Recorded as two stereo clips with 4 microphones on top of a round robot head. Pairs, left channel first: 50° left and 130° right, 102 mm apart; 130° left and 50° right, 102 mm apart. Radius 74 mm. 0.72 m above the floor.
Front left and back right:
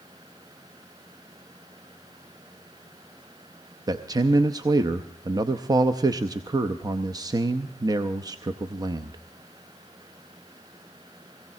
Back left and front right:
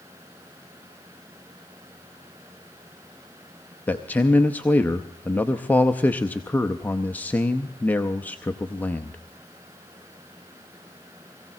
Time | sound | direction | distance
3.9 | a man speaking | 165° right | 0.7 m